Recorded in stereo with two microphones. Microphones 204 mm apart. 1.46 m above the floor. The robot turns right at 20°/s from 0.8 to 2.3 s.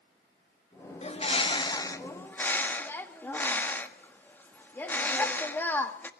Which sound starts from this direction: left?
A bird, at 1.0 s.